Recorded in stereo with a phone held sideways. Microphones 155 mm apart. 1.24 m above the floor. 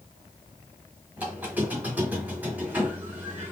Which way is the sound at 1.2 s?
10° right (ahead or behind).